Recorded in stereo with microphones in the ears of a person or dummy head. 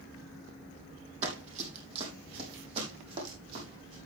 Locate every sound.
1.2 s running footsteps: 40° right (ahead or behind), 4 m; by 4.0 s 35° right (ahead or behind), 7 m